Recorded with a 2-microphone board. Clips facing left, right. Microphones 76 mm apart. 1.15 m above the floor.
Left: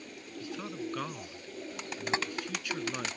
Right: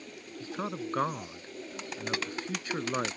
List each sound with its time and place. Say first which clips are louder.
0.4 s a man speaking: right 3 dB; 35° right (ahead or behind)
2.1 s tapping: left 3 dB; 25° left (ahead or behind)